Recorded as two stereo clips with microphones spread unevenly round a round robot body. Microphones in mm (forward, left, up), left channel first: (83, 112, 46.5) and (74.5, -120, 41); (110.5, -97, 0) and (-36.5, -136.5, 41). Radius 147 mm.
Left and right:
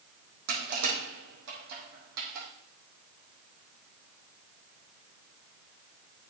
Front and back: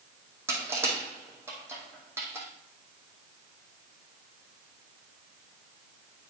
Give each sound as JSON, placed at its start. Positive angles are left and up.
{"t": 0.5, "sound": "crushing", "azimuth_deg": -90, "distance_m": 3.5}